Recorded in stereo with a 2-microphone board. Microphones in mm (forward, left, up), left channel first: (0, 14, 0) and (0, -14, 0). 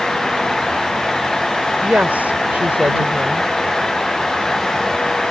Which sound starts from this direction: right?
A woman speaking, at 1.8 s.